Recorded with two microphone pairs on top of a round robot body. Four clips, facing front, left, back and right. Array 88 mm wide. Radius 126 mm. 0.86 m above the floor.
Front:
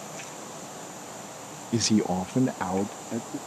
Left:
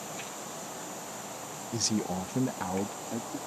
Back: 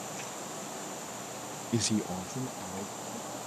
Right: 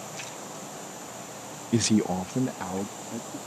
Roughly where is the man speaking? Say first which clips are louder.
Right 8 dB, front 7 dB; right.